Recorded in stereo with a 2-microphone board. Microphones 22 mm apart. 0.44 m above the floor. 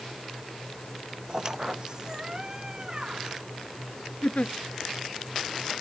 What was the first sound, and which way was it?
A squeak, 30° right (ahead or behind).